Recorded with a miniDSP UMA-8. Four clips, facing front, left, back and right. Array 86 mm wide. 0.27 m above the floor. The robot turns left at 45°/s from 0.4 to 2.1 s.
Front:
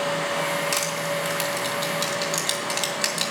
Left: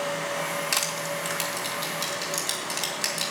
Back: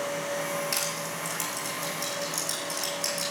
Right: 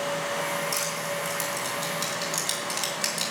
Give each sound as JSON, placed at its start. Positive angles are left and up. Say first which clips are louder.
{"t": 0.7, "sound": "crushing", "louder": "even, front 7 dB", "azimuth_deg": 65, "distance_m": 2.5}